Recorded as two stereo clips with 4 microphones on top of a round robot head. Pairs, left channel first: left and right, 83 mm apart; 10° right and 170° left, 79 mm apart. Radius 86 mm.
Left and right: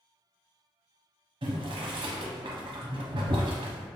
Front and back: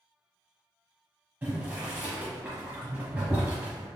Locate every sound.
1.4 s boiling: 115° right, 0.7 m